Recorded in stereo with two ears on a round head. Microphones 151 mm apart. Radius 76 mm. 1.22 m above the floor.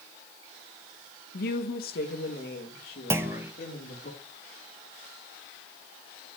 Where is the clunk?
15° right (ahead or behind), 0.8 m.